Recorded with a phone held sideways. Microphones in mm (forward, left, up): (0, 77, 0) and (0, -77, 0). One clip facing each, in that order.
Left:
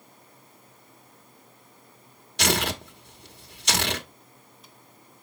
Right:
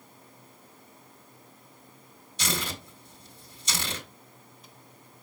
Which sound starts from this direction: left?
Tearing paper, at 2.4 s.